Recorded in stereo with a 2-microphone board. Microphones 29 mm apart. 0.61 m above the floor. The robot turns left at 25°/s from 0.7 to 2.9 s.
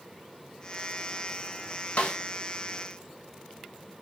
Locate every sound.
2.0 s a snare drum: 45° left (ahead or behind), 0.6 m; by 2.2 s 50° left (ahead or behind), 0.6 m